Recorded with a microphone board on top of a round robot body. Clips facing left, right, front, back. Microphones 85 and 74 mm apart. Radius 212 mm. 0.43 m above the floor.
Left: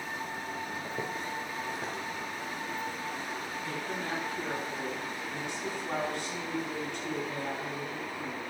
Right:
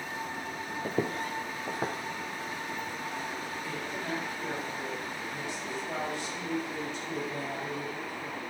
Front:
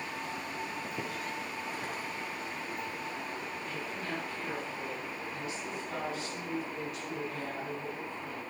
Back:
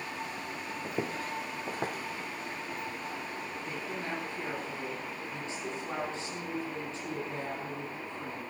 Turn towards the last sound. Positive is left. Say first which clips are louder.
# left 1 dB, back 2 dB
turn(degrees=120)